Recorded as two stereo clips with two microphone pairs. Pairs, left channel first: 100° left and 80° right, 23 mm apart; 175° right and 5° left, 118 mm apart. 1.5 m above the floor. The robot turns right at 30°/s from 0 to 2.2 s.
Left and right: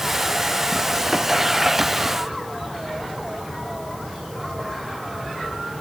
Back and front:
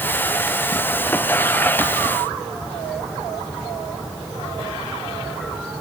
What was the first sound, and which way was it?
Only background noise.